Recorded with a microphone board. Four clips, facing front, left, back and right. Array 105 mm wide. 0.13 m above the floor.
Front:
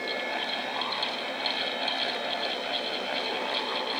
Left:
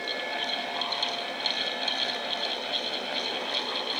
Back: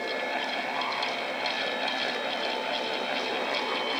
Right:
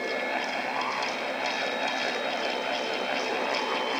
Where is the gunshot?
No gunshot in this recording.